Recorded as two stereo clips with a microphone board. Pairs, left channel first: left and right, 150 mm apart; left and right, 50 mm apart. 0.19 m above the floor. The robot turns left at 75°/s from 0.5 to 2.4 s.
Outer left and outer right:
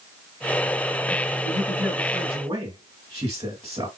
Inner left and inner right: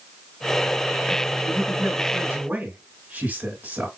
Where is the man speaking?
35° left, 2 m; by 3.9 s 40° right, 2 m.